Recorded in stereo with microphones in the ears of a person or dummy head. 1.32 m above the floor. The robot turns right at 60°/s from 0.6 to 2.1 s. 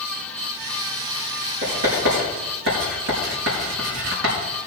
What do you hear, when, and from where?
1.6 s writing: 35° right (ahead or behind), 5 m; by 4.3 s 65° right (ahead or behind), 5 m